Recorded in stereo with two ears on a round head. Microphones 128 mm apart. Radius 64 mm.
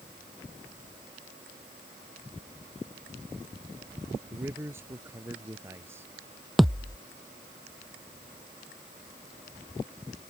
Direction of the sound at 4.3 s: 15° right (ahead or behind).